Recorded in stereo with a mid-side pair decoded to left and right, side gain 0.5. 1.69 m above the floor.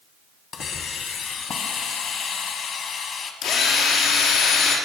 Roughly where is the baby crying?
I don't hear a baby crying.